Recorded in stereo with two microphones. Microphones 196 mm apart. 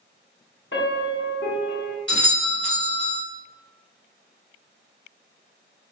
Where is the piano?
75° left (ahead or behind), 0.9 m.